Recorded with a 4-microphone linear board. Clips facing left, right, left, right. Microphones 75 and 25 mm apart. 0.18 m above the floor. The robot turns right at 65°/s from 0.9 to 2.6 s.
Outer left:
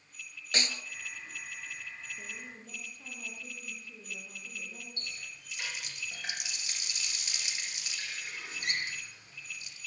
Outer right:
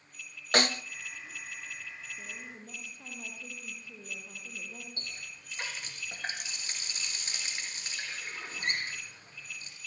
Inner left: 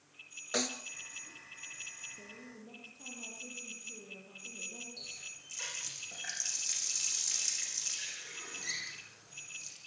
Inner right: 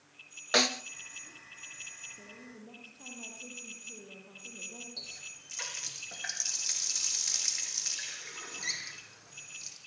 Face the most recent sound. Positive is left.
turn(degrees=-40)  # may be behind; listen again after turning